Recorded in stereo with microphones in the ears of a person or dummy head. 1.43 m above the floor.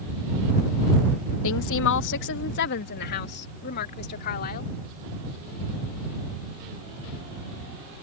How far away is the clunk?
I don't hear a clunk.